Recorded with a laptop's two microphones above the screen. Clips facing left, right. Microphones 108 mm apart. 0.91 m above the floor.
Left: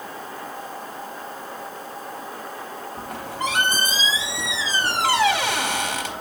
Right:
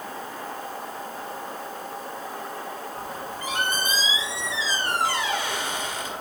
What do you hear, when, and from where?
3.0 s a squeak: 75° left (ahead or behind), 0.7 m